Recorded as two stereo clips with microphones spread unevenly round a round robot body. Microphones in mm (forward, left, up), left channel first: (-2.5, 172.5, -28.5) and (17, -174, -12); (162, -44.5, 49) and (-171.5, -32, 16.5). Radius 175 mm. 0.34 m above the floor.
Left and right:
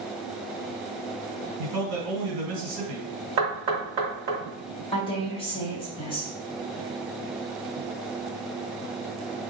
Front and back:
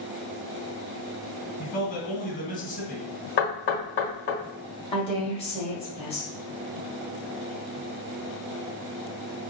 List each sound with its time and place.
1.6 s a man speaking: 70° right, 1.9 m
3.4 s knocking: 50° right, 1.4 m
4.9 s a woman speaking: 55° left, 1.4 m